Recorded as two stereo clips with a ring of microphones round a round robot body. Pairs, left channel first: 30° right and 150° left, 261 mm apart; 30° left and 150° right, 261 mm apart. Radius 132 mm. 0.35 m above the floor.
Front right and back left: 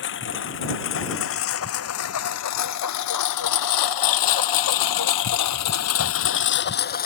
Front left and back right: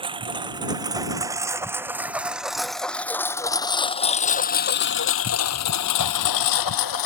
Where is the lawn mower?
80° right; by 7.1 s 30° left.